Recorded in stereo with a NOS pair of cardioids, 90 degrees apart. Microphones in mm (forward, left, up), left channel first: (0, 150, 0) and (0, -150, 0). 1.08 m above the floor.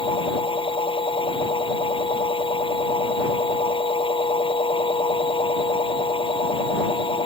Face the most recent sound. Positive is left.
turn(degrees=15)